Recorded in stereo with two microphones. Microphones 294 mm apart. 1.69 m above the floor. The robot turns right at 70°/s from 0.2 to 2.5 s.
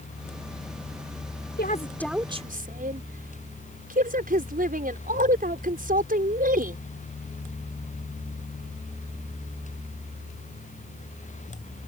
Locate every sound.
1.6 s a woman speaking: 35° left (ahead or behind); by 6.8 s 30° right (ahead or behind)